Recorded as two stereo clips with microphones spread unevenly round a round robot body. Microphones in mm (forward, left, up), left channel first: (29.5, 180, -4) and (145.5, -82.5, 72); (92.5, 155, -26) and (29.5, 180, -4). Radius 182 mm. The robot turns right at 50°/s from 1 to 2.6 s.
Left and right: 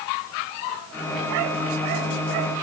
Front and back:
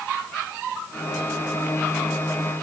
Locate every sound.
Only background noise.